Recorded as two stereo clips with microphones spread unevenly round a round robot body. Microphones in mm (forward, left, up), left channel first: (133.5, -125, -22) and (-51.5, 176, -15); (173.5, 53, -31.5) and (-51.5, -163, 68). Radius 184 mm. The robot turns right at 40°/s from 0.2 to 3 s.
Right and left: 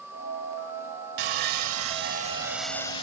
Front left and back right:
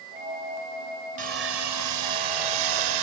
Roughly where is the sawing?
Behind left.